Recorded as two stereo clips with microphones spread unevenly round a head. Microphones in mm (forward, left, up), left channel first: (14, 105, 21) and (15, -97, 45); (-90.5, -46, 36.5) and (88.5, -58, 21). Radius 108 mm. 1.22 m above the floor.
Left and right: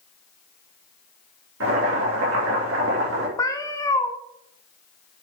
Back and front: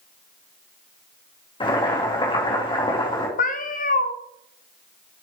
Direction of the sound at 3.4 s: 165° left.